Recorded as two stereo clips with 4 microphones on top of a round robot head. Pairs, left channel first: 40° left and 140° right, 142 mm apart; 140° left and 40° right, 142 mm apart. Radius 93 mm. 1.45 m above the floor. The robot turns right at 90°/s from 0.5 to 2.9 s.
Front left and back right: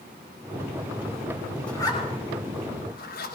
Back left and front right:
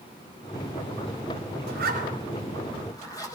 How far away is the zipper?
About 4.5 m.